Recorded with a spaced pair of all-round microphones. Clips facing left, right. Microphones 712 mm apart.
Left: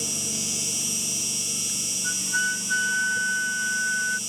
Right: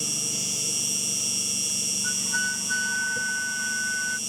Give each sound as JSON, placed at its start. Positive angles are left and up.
{"t": 0.0, "sound": "an insect", "side_deg": 40}
{"t": 2.0, "sound": "a flute", "side_deg": -70}